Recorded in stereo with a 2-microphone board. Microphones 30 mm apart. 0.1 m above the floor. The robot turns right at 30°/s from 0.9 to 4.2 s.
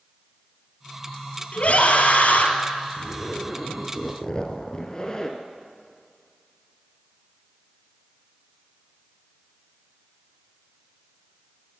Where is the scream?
50° left (ahead or behind), 1.9 m; by 2.5 s 55° left (ahead or behind), 1.9 m.